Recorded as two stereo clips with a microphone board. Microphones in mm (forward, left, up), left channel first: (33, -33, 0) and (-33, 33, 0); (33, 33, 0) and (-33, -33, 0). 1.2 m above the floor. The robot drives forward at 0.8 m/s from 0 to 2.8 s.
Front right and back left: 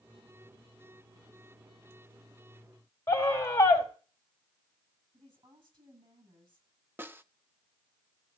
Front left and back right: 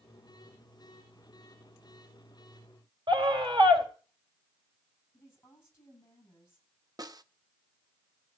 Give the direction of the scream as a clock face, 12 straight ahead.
3 o'clock.